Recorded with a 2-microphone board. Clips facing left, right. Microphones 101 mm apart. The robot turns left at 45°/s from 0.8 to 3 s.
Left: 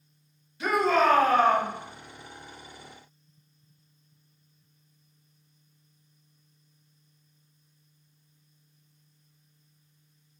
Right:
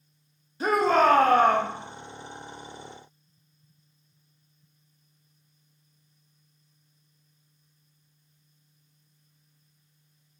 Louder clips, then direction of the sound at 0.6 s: Right 2 dB; 50° right.